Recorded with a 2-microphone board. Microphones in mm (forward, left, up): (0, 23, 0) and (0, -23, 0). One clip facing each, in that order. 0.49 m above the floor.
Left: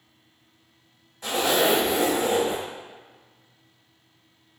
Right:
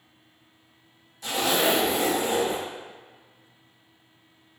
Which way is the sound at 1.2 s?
35° left (ahead or behind).